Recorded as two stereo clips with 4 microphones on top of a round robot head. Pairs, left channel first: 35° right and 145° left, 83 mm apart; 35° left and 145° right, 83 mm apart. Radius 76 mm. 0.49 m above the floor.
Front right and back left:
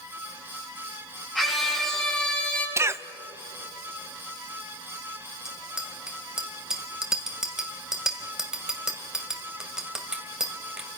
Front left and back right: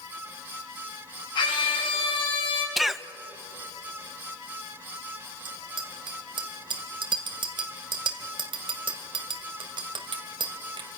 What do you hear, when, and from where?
1.4 s a scream: 55° left, 6 m; by 2.7 s 40° left, 5 m
2.8 s a cough: 130° left, 0.9 m
5.5 s a bicycle bell: 135° right, 2 m